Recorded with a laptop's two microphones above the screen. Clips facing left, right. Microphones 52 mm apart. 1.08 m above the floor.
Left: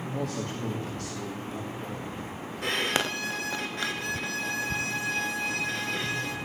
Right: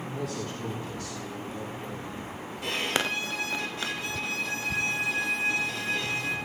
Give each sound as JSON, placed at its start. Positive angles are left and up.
{"t": 0.1, "sound": "a man speaking", "side_deg": 70, "distance_m": 2.5}
{"t": 2.6, "sound": "a violin", "side_deg": 65, "distance_m": 2.5}